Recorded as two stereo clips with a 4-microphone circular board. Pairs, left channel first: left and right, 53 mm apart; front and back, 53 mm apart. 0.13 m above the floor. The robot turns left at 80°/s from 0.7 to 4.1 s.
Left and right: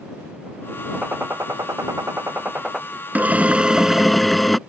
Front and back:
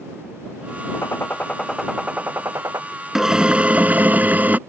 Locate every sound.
0.9 s a gunshot: 20° right; by 2.8 s 170° right
3.1 s a drill: 105° right; by 4.6 s straight behind